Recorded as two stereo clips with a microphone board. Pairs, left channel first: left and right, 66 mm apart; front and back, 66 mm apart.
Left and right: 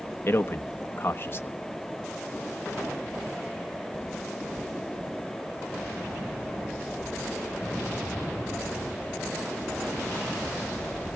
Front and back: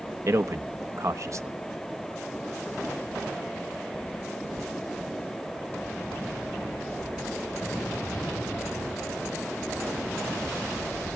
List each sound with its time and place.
0.3 s a man speaking: 145° left, 1.2 m